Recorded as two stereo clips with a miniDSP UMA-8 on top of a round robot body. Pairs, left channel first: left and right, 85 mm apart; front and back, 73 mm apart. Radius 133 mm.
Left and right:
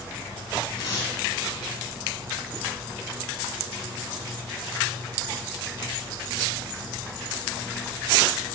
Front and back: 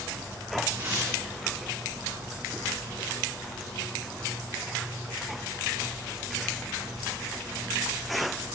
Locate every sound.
0.8 s tearing paper: 115° left, 4.5 m